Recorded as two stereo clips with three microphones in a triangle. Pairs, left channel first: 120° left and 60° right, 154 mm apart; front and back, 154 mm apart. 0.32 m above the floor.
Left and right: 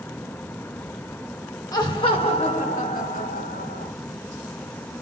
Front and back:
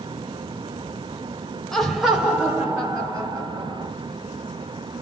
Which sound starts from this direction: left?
Laughter, at 1.7 s.